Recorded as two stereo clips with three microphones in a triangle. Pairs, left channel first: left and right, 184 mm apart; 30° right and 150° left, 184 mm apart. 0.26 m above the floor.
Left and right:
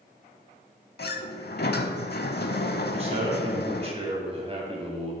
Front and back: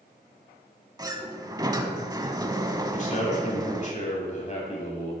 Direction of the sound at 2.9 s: 50° right.